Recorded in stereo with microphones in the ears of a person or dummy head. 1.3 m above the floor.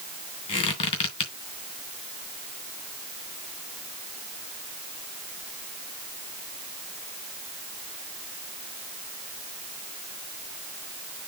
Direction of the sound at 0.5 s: 35° left (ahead or behind).